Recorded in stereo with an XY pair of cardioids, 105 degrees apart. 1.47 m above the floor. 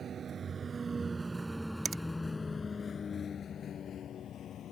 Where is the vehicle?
50° right; by 4.7 s 65° left.